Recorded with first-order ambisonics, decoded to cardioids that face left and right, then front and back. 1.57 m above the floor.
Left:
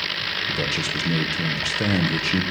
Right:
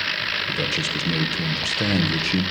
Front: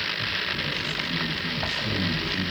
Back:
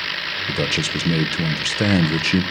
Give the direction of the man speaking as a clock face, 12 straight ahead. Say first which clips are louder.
Even, back 6 dB; 6 o'clock.